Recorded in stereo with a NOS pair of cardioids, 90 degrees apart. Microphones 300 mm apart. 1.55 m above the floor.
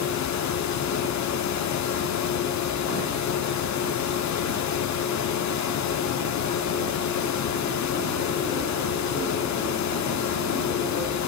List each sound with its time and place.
0.0 s a fan: 65° left, 1.3 m